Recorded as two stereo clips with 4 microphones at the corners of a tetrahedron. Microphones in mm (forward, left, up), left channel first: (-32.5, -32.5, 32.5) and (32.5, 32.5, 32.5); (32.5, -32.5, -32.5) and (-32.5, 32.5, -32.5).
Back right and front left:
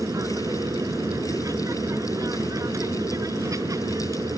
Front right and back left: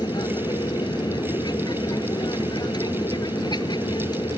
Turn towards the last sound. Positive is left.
turn(degrees=-5)